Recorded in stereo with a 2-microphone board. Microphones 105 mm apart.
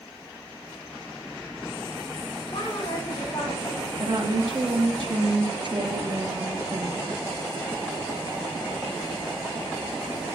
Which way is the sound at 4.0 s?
45° right (ahead or behind).